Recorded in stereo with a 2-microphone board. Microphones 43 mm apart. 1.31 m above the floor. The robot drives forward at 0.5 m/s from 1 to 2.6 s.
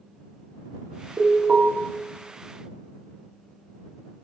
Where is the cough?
I don't hear a cough.